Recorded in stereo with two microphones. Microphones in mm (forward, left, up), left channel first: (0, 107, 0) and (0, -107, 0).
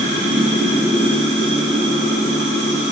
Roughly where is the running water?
Right.